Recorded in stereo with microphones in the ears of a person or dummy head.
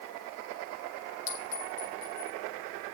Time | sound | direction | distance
1.3 | a clink | 70° left (ahead or behind) | 6.5 m